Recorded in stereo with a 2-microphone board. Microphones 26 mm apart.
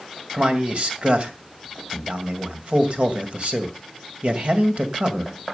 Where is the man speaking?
50° right (ahead or behind), 2 m.